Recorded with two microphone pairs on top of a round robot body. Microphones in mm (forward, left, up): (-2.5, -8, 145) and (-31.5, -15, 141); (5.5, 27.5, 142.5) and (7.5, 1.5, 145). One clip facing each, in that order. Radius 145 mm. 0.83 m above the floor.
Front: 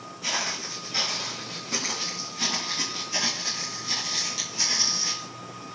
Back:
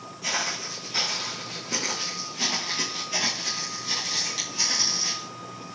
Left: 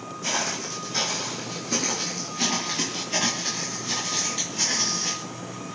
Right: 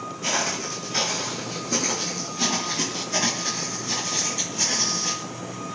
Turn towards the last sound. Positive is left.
turn(degrees=125)